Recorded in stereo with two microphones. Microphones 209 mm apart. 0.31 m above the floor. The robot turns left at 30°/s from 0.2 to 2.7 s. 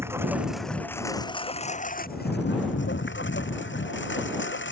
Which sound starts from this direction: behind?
A lawn mower, at 0.0 s.